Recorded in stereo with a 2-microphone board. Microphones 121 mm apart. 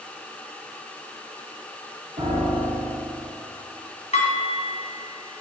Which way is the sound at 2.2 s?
75° right (ahead or behind).